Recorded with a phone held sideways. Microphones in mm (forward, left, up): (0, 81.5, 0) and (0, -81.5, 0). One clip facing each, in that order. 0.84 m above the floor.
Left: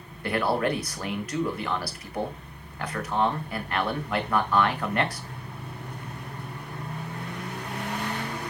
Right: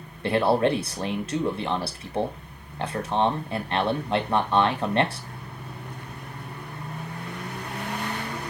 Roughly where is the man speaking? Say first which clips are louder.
Right 4 dB; right.